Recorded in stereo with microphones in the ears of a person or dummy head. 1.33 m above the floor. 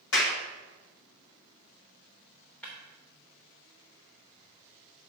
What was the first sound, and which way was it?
A clap, 60° left (ahead or behind).